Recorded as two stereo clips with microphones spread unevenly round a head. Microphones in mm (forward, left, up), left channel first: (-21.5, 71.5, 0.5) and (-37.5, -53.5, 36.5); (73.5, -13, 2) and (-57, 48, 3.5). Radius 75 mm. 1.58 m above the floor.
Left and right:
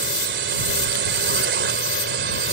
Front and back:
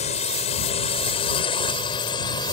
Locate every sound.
0.0 s a drone: 75° right; by 2.5 s 90° right